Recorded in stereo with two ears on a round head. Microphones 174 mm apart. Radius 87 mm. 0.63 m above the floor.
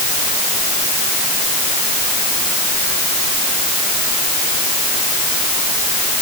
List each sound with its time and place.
Only background noise.